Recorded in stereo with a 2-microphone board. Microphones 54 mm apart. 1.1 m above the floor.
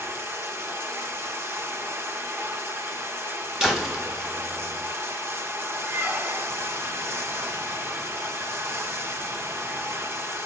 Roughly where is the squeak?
Right.